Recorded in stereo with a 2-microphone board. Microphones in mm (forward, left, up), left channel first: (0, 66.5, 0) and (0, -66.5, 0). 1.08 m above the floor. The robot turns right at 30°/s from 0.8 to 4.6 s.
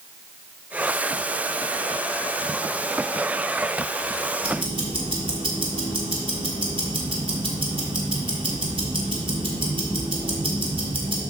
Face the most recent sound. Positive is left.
turn(degrees=-40)  # may be behind; listen again after turning